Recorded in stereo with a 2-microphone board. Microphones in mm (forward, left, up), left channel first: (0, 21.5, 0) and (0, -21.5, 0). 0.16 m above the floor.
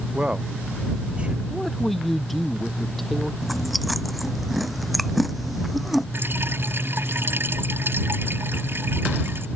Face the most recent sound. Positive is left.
turn(degrees=-55)  # may be behind; listen again after turning